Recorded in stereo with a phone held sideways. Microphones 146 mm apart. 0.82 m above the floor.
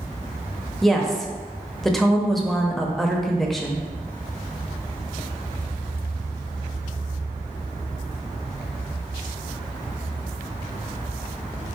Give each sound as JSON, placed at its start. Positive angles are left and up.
{"t": 0.8, "sound": "a woman speaking", "side_deg": 0, "distance_m": 0.7}